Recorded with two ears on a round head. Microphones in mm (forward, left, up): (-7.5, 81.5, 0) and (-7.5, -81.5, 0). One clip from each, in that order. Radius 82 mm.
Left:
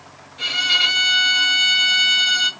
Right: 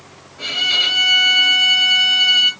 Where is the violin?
65° left (ahead or behind), 2.5 m.